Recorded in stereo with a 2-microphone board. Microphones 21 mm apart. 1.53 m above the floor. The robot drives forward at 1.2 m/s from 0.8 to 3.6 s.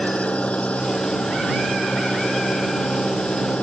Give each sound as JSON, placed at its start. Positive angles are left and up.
{"t": 0.0, "sound": "an engine running", "side_deg": 80}